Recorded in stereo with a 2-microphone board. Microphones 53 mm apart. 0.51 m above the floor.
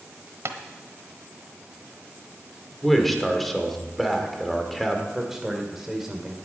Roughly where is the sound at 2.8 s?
Centre.